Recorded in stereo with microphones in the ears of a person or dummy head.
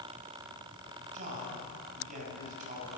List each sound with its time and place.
1.1 s a man speaking: 40° right (ahead or behind), 7.5 m